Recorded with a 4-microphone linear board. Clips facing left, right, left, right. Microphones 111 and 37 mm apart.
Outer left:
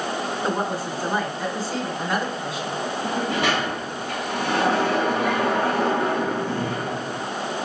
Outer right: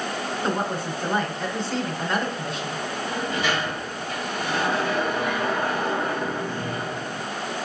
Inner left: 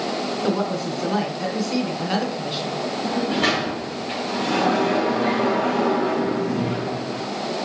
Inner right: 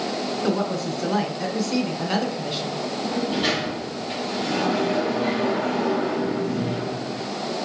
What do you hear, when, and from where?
0.4 s a woman speaking: 5° left (ahead or behind), 2.5 m
3.0 s a sliding door: 85° left, 3 m